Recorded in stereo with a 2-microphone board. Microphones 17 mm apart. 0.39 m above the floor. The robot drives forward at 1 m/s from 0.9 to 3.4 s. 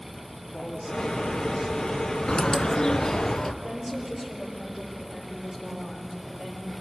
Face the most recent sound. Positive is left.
turn(degrees=-65)  # may be behind; listen again after turning